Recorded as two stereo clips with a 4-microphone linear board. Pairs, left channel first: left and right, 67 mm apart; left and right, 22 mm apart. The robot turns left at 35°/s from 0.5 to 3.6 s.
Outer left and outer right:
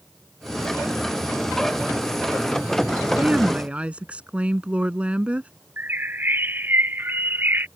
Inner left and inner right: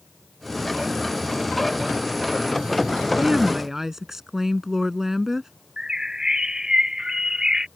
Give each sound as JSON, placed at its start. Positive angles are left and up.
{"t": 3.2, "sound": "a woman speaking", "side_deg": -15}
{"t": 5.8, "sound": "a bird", "side_deg": -30}